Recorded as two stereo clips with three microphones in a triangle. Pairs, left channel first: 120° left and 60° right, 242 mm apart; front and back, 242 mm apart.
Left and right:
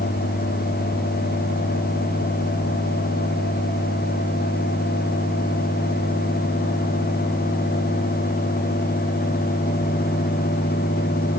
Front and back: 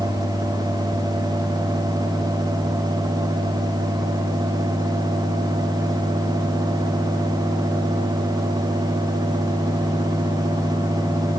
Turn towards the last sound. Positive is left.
No sound to turn to.